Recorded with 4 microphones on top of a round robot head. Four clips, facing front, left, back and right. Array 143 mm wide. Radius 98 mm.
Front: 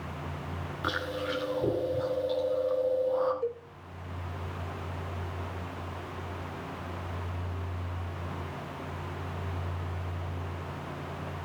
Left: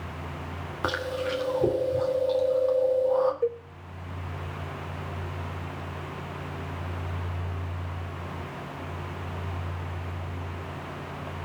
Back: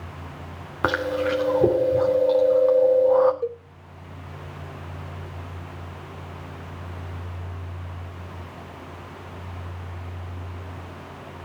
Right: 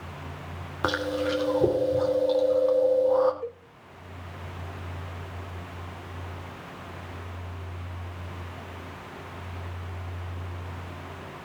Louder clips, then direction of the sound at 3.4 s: Left 9 dB, back 4 dB; 120° left.